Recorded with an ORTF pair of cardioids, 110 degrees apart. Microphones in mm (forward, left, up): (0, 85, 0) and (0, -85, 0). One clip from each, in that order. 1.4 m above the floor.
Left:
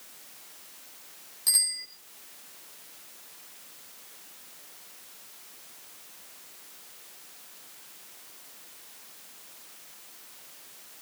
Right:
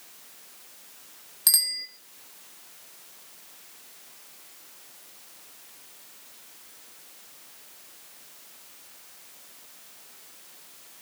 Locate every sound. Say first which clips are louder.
1.5 s a bicycle bell: right 3 dB; 55° right, 4.5 m